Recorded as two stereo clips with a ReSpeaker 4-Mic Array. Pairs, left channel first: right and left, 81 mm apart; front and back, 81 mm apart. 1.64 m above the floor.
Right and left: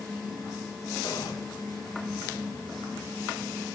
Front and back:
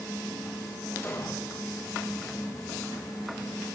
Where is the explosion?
55° right, 6 m.